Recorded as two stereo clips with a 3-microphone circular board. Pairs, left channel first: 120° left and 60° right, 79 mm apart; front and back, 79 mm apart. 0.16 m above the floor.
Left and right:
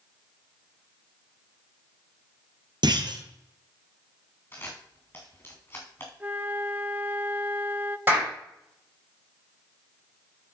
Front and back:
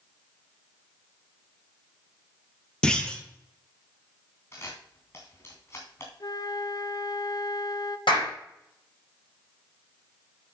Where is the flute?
5° left, 0.6 m.